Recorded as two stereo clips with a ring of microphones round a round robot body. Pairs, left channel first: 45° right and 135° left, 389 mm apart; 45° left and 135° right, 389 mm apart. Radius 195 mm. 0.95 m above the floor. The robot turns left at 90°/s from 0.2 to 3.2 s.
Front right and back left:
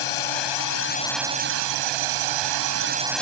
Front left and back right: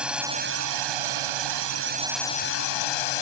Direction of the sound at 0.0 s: 50° right.